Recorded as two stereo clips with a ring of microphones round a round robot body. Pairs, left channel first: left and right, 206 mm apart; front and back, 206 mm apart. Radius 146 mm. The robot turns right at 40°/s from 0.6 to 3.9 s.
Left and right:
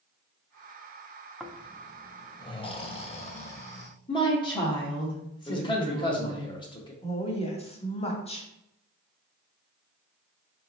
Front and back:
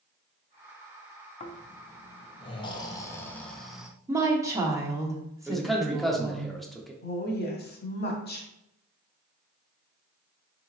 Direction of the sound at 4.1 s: 125° left.